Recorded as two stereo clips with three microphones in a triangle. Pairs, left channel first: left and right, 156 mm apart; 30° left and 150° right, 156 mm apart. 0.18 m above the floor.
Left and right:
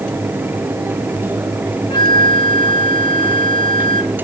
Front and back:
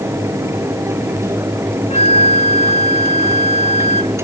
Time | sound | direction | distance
1.9 | a flute | 45° left | ?